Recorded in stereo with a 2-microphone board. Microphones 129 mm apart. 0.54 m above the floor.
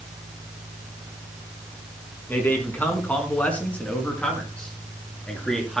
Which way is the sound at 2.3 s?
15° left (ahead or behind).